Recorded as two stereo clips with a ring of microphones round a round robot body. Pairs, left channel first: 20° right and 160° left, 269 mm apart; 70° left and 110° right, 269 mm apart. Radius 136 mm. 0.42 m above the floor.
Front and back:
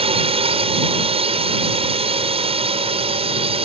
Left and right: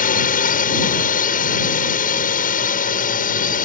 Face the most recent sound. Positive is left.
turn(degrees=105)